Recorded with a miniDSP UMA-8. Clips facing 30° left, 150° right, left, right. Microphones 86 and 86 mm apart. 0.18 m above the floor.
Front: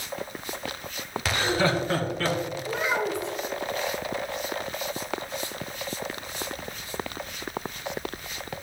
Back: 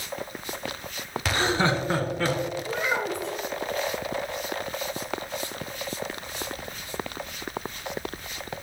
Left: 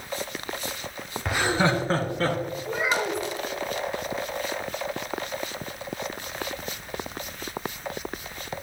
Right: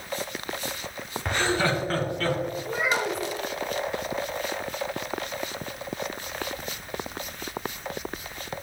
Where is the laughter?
170° left, 1.5 m; by 2.4 s 135° left, 2.5 m.